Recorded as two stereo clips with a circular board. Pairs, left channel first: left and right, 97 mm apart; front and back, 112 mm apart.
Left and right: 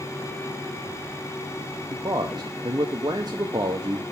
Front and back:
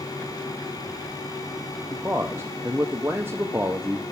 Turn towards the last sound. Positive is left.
turn(degrees=-115)